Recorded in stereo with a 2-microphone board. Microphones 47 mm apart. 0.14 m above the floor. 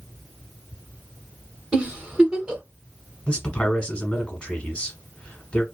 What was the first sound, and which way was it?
A giggle, 20° right (ahead or behind).